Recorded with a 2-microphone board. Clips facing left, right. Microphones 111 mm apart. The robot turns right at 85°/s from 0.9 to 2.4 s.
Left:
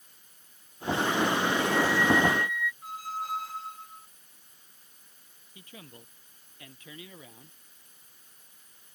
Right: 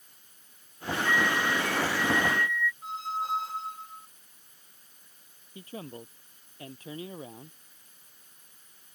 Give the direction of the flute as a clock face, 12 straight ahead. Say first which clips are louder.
Even; 4 o'clock.